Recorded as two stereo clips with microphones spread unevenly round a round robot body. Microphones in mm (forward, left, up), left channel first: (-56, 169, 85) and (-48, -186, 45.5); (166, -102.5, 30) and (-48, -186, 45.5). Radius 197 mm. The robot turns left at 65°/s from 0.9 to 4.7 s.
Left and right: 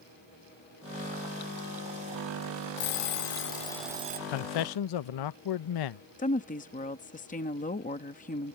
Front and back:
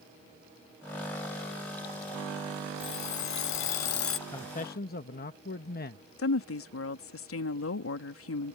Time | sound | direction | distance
2.8 | an alarm clock | 70° left | ?
4.3 | a man speaking | 95° left | ?
6.2 | a woman speaking | 20° left | ?